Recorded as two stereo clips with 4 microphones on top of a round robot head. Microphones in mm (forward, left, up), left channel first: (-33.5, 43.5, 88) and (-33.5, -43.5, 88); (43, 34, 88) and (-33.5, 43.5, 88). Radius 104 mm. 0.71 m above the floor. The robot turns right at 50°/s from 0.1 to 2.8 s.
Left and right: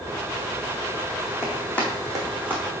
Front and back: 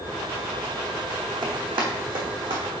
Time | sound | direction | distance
1.4 | running footsteps | 150° left | 2.0 m